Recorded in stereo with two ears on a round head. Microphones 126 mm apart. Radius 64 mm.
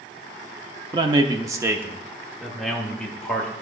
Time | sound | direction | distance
0.9 | a man speaking | 30° right (ahead or behind) | 0.7 m